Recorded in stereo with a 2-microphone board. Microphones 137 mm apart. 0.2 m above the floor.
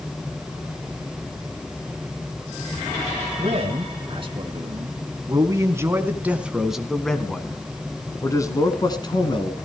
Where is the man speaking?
50° right (ahead or behind), 2.5 m; by 9.6 s 40° left (ahead or behind), 2.5 m.